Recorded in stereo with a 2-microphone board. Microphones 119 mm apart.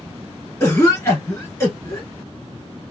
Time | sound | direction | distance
0.6 | a cough | 25° left (ahead or behind) | 1.4 m